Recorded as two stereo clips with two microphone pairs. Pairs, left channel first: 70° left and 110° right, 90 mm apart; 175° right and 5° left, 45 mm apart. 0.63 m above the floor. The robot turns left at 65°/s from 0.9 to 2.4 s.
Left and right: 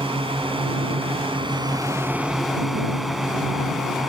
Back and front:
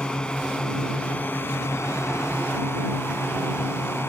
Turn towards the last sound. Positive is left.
turn(degrees=160)